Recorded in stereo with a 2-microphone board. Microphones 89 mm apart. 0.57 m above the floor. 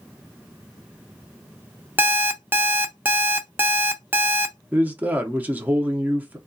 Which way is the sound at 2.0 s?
20° right (ahead or behind).